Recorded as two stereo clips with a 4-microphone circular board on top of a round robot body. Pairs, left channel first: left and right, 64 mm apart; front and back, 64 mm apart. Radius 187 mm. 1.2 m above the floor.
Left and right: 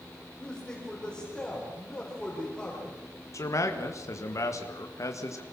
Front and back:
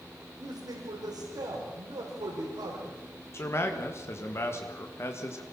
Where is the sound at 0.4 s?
170° left, 5 m.